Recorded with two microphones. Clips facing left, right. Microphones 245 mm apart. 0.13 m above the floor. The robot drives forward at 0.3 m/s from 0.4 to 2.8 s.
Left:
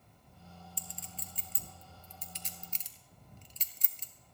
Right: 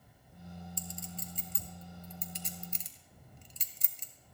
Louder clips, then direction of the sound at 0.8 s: Right 7 dB; 45° right (ahead or behind).